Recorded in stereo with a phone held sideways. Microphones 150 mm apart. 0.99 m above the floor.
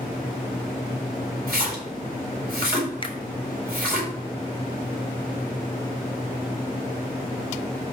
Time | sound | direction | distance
1.5 | a splash | 80° right | 3.5 m
3.0 | a finger snap | 35° left (ahead or behind) | 0.5 m